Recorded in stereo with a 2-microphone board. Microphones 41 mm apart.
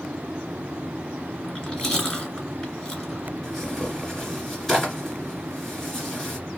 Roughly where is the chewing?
Centre.